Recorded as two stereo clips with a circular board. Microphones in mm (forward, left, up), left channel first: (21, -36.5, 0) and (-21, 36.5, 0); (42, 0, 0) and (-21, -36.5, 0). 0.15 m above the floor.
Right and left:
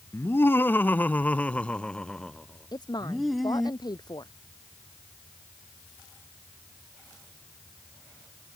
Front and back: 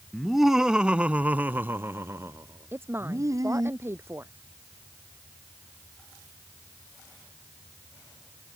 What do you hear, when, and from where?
0.1 s laughter: 60° right; by 3.7 s 155° right
2.7 s a woman speaking: 95° right